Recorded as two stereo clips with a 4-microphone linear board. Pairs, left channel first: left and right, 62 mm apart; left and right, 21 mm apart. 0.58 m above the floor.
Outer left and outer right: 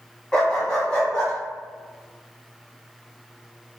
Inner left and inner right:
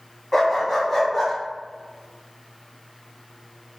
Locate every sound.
0.3 s a dog barking: 15° left (ahead or behind), 1.8 m; by 1.3 s 20° left (ahead or behind), 2.5 m